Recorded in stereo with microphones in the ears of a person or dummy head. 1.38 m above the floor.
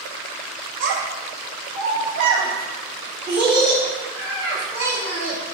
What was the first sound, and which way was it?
A child speaking, 70° right (ahead or behind).